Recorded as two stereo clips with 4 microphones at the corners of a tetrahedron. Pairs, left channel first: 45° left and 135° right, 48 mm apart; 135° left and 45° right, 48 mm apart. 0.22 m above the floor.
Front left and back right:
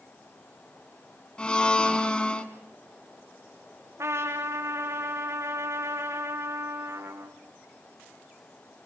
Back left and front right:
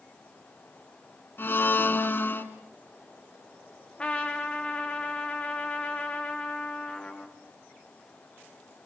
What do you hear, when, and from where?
1.4 s a blender: 110° left, 1.7 m
4.0 s a trumpet: 155° right, 3 m